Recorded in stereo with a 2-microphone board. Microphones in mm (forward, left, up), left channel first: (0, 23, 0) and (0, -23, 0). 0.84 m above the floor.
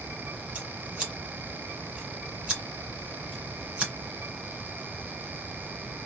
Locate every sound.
0.6 s scissors: 20° right (ahead or behind), 2.5 m